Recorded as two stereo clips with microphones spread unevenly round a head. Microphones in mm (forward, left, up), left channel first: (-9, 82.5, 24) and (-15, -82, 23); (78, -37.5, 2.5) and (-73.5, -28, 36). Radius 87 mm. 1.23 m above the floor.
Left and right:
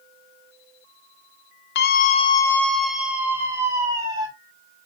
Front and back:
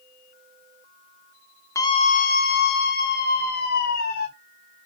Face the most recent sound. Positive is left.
turn(degrees=-20)